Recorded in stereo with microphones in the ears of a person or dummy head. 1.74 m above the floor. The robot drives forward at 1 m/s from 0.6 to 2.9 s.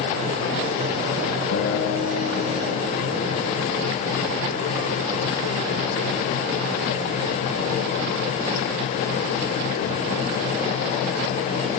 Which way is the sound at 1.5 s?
70° left (ahead or behind).